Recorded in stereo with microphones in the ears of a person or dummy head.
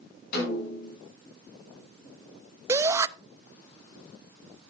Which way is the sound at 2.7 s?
20° right (ahead or behind).